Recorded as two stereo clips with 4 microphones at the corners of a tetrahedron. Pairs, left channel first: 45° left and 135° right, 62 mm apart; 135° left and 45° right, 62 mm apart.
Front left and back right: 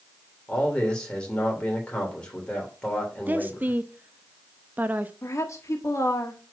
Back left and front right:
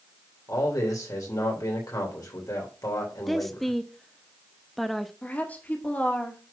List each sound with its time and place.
0.5 s a man speaking: 120° left, 3 m
3.3 s a woman speaking: 140° right, 0.7 m
5.2 s a woman speaking: 75° left, 1.5 m